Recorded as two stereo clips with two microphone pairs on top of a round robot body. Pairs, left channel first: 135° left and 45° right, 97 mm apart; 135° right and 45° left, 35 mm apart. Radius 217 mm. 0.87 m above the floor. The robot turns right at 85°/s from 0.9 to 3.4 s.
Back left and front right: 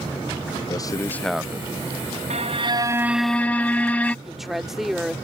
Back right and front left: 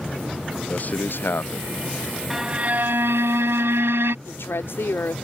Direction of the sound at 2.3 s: 35° right.